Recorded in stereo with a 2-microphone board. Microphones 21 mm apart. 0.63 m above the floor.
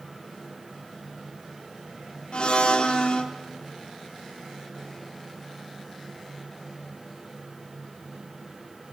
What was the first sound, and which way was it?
A blender, 55° left (ahead or behind).